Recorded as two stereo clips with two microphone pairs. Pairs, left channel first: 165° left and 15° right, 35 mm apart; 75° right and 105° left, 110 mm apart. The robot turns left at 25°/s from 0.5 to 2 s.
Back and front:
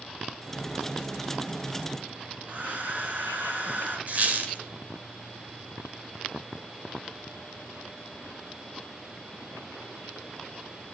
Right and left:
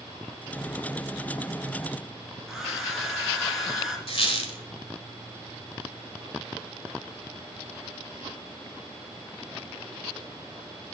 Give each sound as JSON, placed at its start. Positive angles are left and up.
{"t": 2.5, "sound": "a hair dryer", "azimuth_deg": 25, "distance_m": 1.7}
{"t": 4.1, "sound": "a squeak", "azimuth_deg": -45, "distance_m": 1.3}